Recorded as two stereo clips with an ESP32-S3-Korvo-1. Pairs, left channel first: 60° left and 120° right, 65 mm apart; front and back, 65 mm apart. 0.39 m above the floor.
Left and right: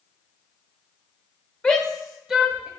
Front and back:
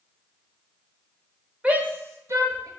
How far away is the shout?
About 0.9 m.